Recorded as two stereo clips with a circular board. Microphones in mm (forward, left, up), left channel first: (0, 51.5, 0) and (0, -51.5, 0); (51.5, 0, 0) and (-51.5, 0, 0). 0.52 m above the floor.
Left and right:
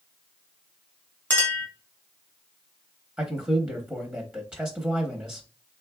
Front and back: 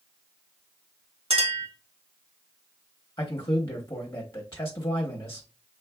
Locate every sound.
1.3 s a clink: 165° left, 1.6 m
3.2 s a man speaking: 25° right, 0.9 m